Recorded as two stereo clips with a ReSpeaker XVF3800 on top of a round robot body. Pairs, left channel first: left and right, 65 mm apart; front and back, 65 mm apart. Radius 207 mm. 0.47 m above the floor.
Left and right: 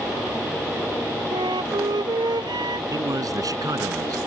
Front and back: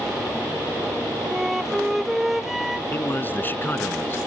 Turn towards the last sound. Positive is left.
turn(degrees=-60)